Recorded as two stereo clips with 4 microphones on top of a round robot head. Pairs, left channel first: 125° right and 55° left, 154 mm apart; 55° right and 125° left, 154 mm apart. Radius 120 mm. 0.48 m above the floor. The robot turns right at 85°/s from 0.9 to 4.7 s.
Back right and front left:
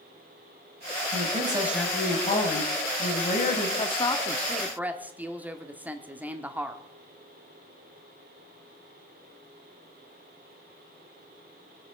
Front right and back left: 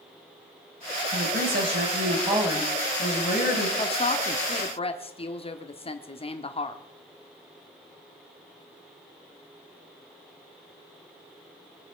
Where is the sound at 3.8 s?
100° right, 1.3 m; by 6.8 s 20° right, 1.3 m.